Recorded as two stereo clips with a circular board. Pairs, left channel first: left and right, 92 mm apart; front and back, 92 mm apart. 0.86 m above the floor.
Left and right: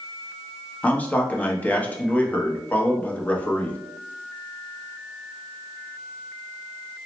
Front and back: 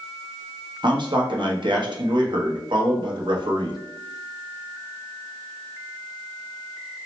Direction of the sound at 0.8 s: 165° left.